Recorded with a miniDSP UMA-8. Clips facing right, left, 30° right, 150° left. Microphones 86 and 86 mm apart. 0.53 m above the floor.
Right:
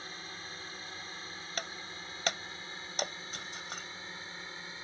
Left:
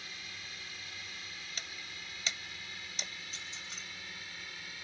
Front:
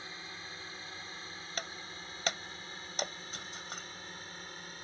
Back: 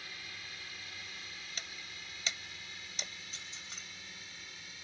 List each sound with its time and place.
0.0 s a drone: 70° right; by 4.8 s 45° right
1.6 s breaking glass: 65° right